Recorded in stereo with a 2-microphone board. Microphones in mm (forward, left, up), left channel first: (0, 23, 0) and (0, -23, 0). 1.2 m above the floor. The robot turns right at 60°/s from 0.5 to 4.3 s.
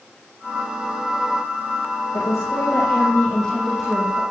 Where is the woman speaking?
85° left, 6 m; by 4.2 s 155° right, 6 m.